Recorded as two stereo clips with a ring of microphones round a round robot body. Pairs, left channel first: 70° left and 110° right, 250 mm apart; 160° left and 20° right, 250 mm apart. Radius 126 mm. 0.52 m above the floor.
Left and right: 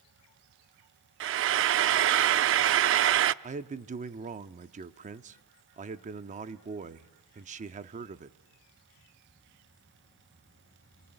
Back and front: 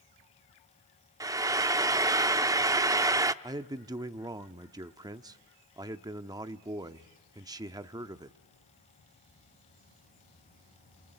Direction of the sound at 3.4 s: 85° right.